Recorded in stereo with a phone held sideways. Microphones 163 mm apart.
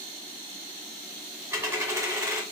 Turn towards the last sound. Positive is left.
turn(degrees=-20)  # may be behind; listen again after turning